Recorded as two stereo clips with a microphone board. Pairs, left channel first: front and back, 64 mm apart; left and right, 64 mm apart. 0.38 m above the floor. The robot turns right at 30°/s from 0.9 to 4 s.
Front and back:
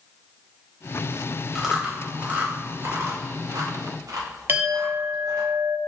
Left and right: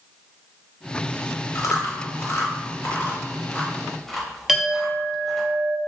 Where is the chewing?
100° left, 0.6 m; by 5.5 s 170° left, 0.6 m.